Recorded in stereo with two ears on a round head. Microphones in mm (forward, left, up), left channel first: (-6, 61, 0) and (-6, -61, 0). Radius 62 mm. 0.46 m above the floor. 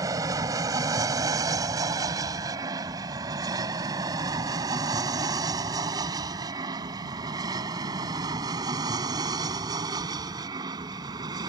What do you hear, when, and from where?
0.0 s an aircraft: 25° right (ahead or behind); by 11.5 s 30° right (ahead or behind)